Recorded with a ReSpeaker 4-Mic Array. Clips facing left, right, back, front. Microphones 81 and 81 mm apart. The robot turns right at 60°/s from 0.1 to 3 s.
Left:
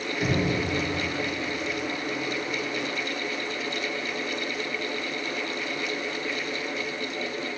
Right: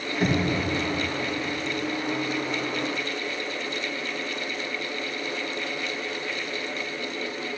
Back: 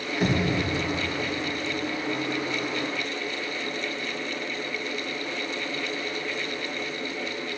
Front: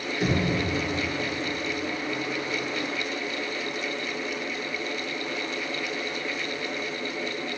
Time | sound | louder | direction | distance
0.2 | knocking | right 2 dB, back 1 dB | 145° right | 1.7 m